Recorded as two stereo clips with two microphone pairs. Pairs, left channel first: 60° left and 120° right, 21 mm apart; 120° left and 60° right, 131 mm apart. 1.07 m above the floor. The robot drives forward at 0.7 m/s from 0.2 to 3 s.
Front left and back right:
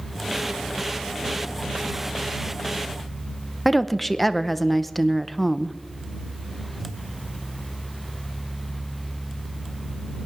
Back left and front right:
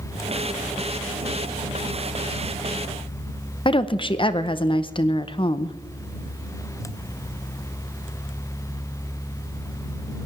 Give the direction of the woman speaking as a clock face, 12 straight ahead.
7 o'clock.